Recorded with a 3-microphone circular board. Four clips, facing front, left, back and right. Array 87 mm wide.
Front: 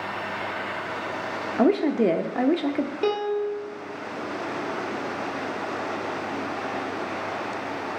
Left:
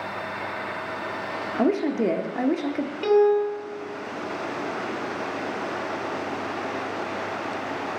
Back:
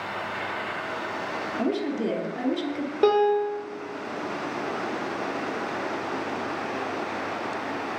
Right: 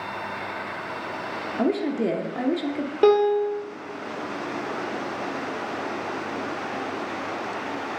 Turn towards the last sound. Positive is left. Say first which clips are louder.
# right 1 dB, back 7 dB
turn(degrees=-120)